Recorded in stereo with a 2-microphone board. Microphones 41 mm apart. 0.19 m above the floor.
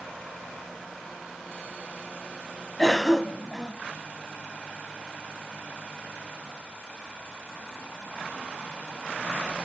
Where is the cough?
10° left (ahead or behind), 1.3 m.